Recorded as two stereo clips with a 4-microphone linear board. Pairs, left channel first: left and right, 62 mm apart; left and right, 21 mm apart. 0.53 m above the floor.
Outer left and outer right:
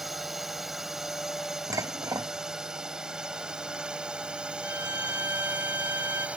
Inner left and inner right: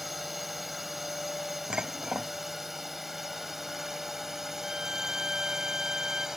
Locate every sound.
0.0 s a drone: 5° right (ahead or behind); by 6.4 s 20° right (ahead or behind)
1.7 s dishes clattering: 65° right (ahead or behind)
4.6 s a violin: 45° right (ahead or behind)